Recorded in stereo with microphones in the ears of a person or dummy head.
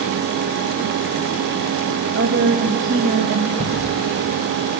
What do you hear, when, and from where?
2.1 s a woman speaking: 65° right (ahead or behind), 1.0 m
3.6 s ticking: 45° right (ahead or behind), 6.5 m